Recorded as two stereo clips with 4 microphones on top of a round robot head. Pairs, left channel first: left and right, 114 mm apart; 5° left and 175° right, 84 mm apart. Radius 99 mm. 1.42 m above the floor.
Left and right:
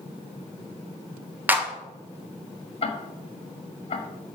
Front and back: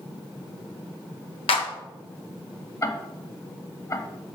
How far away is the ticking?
About 1.4 m.